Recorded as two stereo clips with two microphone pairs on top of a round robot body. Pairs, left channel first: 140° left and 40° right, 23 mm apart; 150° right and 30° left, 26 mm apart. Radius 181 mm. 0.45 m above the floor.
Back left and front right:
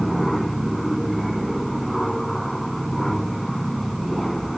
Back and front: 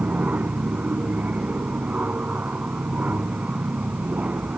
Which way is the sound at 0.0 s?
50° left.